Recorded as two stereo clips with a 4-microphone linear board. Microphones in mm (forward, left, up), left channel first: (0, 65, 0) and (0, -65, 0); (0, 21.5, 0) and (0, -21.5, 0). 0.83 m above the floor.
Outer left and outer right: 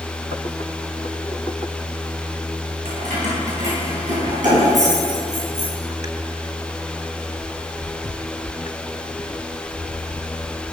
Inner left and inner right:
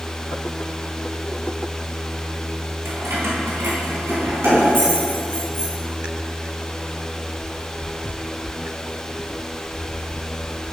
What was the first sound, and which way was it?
Keys jangling, 80° right.